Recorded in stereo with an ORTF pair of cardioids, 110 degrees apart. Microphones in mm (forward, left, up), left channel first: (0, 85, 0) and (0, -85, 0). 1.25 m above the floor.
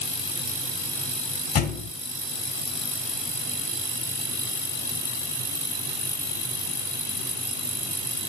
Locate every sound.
1.6 s a thud: 65° left, 3 m